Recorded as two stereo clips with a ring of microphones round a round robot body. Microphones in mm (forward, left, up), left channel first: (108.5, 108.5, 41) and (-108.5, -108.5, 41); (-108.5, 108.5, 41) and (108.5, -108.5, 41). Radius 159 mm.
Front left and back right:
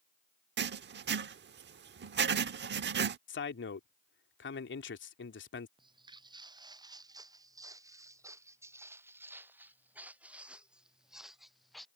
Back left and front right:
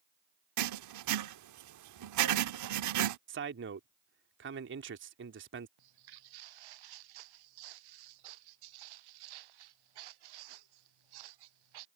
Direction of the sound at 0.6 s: 80° right.